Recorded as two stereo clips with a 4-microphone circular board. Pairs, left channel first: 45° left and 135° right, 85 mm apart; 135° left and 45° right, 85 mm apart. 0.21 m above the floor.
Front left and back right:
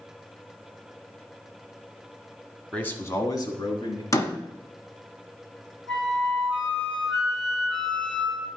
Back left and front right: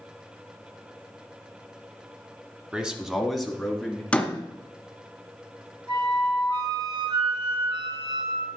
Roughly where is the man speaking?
Ahead.